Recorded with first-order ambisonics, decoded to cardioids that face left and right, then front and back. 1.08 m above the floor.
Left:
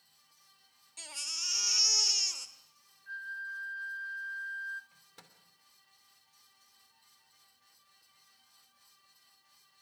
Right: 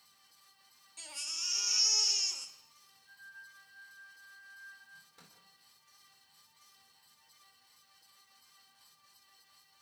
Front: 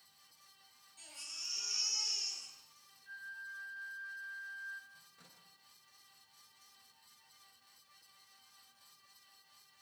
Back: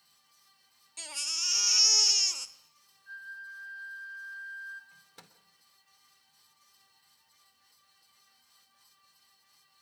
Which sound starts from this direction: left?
A flute, at 3.1 s.